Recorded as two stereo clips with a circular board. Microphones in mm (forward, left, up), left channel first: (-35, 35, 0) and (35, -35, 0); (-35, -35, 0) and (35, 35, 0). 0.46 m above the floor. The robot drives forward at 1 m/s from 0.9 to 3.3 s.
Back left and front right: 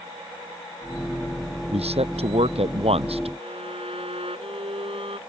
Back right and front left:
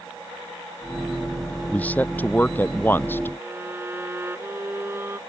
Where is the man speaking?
60° right; by 3.3 s 65° right.